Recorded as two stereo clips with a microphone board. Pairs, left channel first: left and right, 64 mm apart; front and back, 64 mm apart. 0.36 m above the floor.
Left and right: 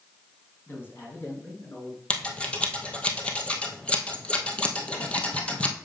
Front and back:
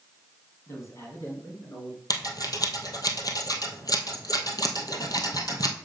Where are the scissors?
20° left, 1.5 m.